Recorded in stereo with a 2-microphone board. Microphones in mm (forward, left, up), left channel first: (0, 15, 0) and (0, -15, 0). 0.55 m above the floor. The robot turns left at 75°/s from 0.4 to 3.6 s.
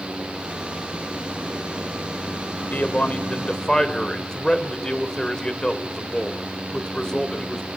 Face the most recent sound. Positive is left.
turn(degrees=25)